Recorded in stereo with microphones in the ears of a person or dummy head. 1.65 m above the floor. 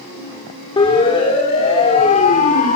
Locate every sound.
0.8 s a siren: 25° left (ahead or behind), 4.5 m; by 2.8 s 40° left (ahead or behind), 5 m